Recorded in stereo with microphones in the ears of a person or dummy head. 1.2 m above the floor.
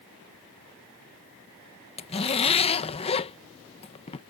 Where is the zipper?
25° left (ahead or behind).